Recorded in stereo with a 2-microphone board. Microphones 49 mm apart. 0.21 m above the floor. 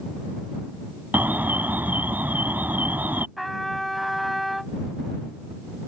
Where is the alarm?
40° right (ahead or behind).